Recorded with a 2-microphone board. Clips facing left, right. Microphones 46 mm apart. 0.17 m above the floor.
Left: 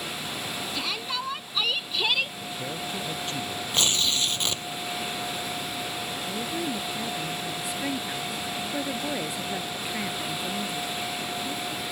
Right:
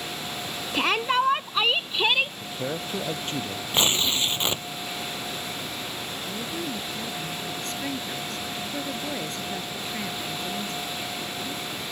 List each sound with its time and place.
0.7 s a shout: 50° right (ahead or behind); by 2.3 s 20° right (ahead or behind)
2.4 s a man speaking: 30° right (ahead or behind)
3.7 s tearing paper: 25° right (ahead or behind)
6.2 s a woman speaking: 10° left (ahead or behind)